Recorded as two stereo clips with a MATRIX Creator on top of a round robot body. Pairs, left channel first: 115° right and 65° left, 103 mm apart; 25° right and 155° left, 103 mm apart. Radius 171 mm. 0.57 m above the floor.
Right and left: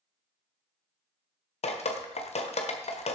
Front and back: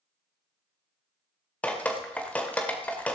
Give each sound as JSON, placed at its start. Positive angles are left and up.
{"t": 1.6, "sound": "dripping", "azimuth_deg": -100, "distance_m": 1.5}